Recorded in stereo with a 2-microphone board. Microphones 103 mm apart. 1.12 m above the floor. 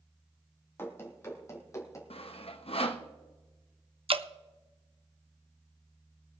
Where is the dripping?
65° right (ahead or behind), 0.6 m.